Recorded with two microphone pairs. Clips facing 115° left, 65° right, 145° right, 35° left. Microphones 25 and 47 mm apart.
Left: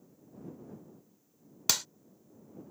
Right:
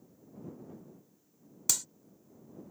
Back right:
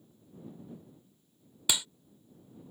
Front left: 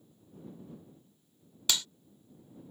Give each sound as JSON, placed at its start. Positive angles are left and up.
{"t": 1.7, "sound": "a clap", "azimuth_deg": 145}